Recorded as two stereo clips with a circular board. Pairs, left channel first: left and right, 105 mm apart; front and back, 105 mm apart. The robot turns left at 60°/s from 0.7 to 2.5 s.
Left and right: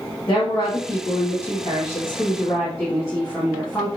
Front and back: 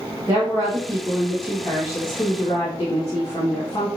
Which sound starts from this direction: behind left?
A woman speaking, at 0.3 s.